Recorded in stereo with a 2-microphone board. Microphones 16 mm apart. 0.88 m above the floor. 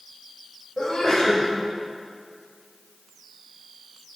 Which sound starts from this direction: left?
A sneeze, at 0.8 s.